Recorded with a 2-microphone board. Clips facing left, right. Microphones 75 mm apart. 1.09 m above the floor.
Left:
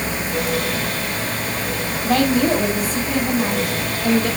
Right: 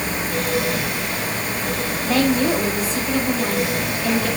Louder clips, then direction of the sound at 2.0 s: Left 2 dB; 65° left (ahead or behind).